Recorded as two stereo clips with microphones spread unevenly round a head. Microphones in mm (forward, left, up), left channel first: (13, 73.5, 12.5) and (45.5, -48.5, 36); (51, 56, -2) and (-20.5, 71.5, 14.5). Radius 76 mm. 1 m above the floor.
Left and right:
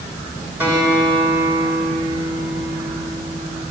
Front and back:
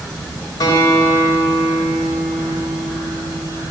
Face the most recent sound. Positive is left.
turn(degrees=-5)